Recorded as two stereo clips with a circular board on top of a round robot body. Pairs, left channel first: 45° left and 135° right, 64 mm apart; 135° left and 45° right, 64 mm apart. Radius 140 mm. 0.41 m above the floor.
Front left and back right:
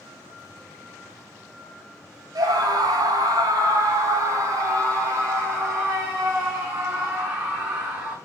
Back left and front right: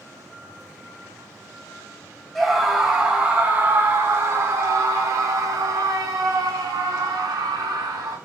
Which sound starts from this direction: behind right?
A scream, at 2.4 s.